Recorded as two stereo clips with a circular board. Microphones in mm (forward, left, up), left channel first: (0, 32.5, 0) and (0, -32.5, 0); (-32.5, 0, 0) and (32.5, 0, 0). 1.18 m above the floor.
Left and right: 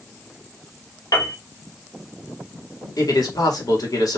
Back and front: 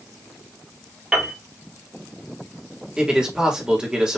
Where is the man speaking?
75° left, 1.7 m.